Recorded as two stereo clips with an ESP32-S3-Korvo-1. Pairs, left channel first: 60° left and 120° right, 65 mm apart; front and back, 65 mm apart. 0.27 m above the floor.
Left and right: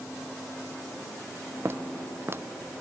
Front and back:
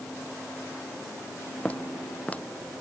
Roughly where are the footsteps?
Right.